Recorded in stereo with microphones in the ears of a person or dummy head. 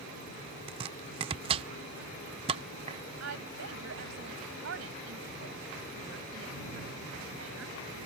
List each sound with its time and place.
0.7 s chopping: 25° right (ahead or behind)
3.2 s a woman speaking: 90° right